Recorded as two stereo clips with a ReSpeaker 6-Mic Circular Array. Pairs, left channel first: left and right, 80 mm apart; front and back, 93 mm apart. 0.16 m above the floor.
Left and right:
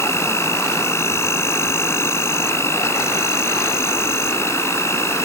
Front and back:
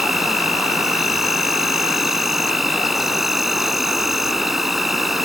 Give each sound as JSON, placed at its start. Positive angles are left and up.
{"t": 0.0, "sound": "an insect", "azimuth_deg": 95}